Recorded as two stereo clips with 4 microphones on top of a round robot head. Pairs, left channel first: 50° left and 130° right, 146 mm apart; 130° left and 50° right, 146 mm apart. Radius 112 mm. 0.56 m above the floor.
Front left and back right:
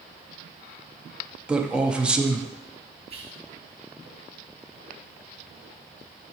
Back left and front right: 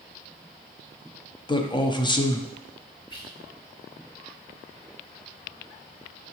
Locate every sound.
1.5 s a man speaking: 150° left, 0.6 m
3.1 s whispering: 175° right, 1.3 m